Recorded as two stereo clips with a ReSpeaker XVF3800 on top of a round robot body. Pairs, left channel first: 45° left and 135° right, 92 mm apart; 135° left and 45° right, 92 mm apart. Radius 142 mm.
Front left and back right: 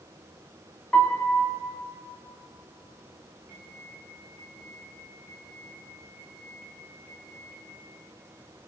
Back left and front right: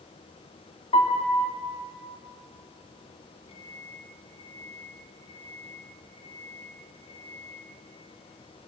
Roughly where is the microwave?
Behind left.